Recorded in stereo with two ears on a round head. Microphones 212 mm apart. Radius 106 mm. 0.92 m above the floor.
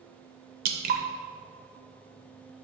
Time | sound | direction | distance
0.7 | dripping | 40° right (ahead or behind) | 0.7 m